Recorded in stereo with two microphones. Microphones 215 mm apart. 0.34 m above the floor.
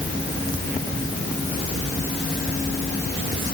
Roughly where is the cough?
I don't hear a cough.